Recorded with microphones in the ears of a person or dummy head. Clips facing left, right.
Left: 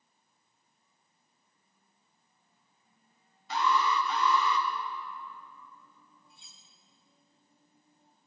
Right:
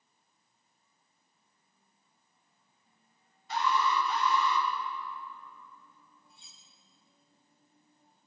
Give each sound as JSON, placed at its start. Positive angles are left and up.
{"t": 3.5, "sound": "an alarm", "side_deg": 65, "distance_m": 1.2}
{"t": 6.3, "sound": "cutlery clinking", "side_deg": 45, "distance_m": 1.0}